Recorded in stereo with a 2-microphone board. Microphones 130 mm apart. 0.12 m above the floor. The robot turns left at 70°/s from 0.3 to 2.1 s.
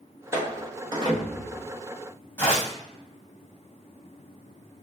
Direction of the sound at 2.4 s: 15° left (ahead or behind).